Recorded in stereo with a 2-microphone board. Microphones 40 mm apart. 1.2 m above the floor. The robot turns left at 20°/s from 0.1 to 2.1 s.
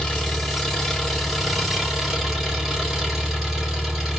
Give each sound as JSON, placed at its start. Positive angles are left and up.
{"t": 0.0, "sound": "an engine running", "azimuth_deg": 25, "distance_m": 3.0}